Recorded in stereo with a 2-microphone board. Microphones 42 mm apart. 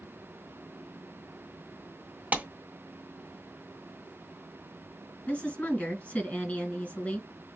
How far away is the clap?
About 1.6 m.